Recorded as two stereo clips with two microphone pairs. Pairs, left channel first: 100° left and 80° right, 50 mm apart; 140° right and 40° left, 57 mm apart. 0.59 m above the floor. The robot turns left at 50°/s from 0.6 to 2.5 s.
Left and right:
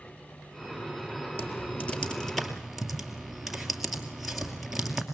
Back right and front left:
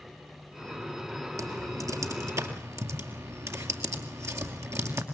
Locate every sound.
1.4 s typing on a keyboard: 60° left, 2.5 m; by 5.0 s 5° left, 2.5 m